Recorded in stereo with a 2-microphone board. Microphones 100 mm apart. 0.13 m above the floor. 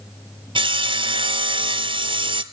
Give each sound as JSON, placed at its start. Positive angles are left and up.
{"t": 0.6, "sound": "sawing", "side_deg": -55, "distance_m": 0.8}